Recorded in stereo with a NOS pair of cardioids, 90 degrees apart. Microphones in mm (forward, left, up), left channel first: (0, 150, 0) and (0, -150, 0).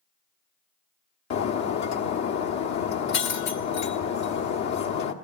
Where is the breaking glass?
70° left, 1.6 m.